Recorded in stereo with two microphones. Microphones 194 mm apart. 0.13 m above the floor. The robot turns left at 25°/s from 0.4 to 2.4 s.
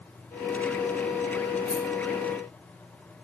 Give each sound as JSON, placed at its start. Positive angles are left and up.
{"t": 1.7, "sound": "a rattle", "side_deg": 15, "distance_m": 1.8}